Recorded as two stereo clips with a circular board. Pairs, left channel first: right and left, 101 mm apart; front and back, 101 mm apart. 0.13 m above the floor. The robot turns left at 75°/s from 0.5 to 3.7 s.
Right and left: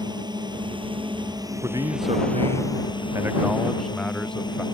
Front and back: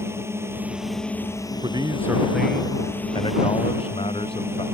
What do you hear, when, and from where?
0.0 s a drone: 120° left; by 4.8 s 120° right
1.6 s a man speaking: 150° left; by 4.7 s 5° right